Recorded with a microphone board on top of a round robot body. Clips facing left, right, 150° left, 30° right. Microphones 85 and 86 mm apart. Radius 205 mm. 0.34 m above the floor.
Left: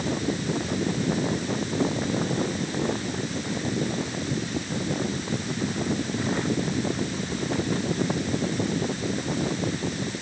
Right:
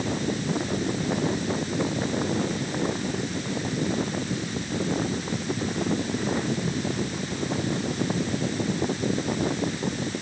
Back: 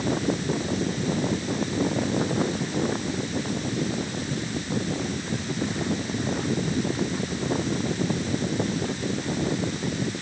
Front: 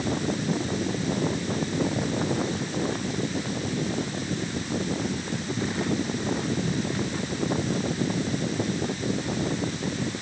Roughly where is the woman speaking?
No woman speaking in this recording.